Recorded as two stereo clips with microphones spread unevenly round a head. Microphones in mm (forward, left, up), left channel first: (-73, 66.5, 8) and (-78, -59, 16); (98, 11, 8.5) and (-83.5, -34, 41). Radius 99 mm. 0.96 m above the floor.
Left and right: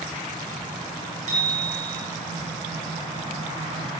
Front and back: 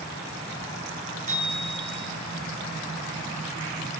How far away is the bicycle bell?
About 9.5 m.